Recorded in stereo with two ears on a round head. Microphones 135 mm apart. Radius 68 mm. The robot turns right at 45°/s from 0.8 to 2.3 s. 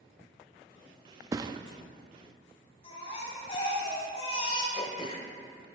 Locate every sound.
1.3 s a thud: 20° right (ahead or behind), 0.6 m; by 1.6 s 35° right (ahead or behind), 0.6 m
2.8 s a baby crying: 45° left (ahead or behind), 3.5 m
4.7 s throat clearing: 40° left (ahead or behind), 1.6 m